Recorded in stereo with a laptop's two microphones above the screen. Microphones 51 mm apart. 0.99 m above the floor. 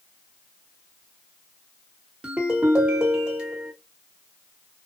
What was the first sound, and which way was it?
A ringtone, 20° right (ahead or behind).